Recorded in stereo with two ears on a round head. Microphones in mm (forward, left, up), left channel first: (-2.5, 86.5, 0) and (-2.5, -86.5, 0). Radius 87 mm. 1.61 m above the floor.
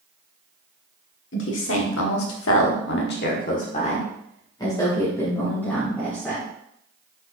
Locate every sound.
1.3 s a woman speaking: 65° left (ahead or behind), 1.7 m; by 6.5 s 5° left (ahead or behind), 3.5 m